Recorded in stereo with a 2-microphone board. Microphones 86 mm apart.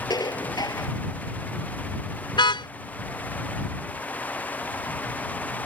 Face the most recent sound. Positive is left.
turn(degrees=65)  # may be behind; listen again after turning